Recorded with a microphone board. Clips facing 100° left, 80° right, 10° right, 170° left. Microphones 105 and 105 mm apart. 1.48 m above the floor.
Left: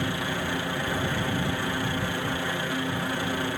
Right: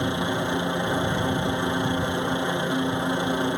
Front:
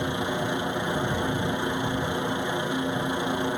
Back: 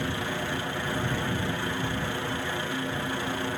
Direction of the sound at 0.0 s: 50° right.